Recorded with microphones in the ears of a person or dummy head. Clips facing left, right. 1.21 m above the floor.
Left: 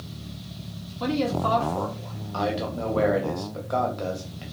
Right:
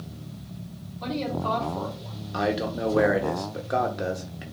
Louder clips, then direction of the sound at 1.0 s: Left 4 dB; 80° left.